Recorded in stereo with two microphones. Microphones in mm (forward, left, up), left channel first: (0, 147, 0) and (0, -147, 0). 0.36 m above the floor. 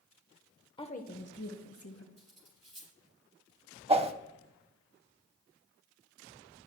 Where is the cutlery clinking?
25° right (ahead or behind), 4.5 m.